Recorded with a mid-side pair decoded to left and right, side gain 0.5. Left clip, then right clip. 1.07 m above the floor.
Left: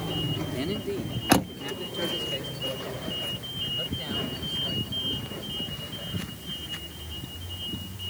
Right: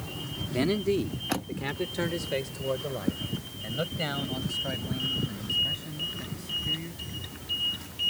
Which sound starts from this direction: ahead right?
A man speaking, at 0.5 s.